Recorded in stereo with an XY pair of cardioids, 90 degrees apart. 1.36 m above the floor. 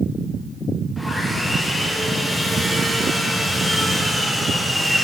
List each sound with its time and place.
1.0 s sawing: straight ahead, 1.1 m